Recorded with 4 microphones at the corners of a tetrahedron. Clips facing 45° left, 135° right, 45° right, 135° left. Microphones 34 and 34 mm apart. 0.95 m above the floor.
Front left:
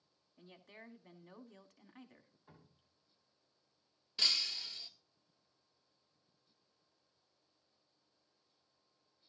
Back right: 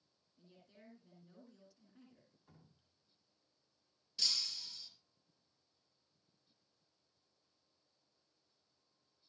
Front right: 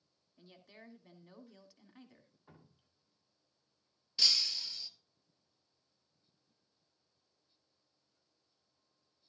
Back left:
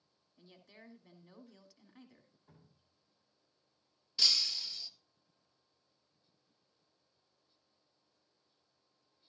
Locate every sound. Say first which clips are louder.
0.4 s a woman speaking: front left 7 dB, front right 1 dB; 35° left, 2 m
2.5 s dripping: front left 4 dB, front right 5 dB; 15° right, 2 m
4.2 s breaking glass: front left 4 dB, even; 40° left, 1.2 m